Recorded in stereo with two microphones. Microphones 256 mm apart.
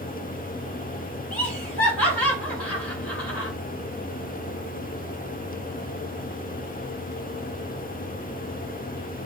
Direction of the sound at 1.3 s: 5° left (ahead or behind).